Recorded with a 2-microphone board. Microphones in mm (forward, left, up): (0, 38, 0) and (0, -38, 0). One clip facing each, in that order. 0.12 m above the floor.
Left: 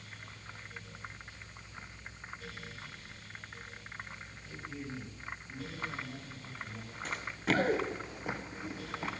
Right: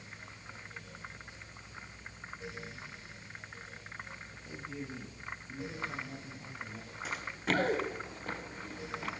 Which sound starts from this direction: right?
A man speaking, at 4.5 s.